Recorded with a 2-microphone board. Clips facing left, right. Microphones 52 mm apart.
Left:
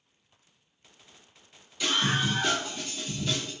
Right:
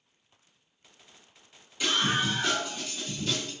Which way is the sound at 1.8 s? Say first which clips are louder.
Even; 10° right (ahead or behind).